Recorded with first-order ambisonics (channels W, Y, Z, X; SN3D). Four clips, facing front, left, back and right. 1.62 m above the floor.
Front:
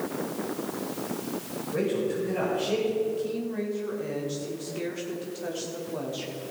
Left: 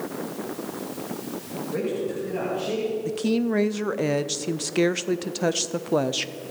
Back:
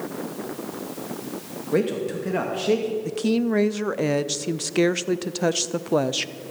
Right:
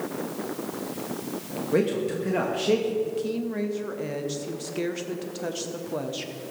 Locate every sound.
1.7 s a man speaking: 145° right, 2.5 m
3.0 s a woman speaking: 145° left, 0.6 m